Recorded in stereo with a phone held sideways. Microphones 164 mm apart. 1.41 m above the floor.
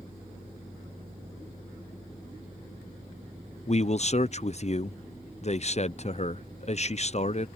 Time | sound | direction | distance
3.7 | a man speaking | 45° left (ahead or behind) | ?